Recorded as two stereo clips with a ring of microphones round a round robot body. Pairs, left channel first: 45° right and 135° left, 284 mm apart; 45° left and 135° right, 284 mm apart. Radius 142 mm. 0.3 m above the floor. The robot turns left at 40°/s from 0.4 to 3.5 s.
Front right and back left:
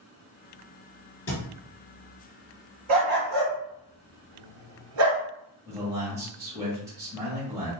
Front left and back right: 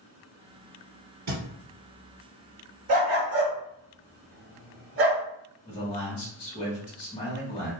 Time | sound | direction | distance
1.3 | a thud | 105° right | 1.6 m
2.9 | a dog barking | 165° right | 1.5 m
5.7 | a man speaking | 70° left | 1.4 m